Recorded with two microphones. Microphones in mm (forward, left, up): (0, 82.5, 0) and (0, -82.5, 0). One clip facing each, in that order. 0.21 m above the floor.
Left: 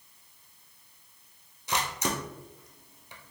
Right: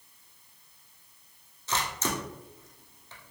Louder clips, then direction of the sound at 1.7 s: Left 1 dB; 15° left (ahead or behind).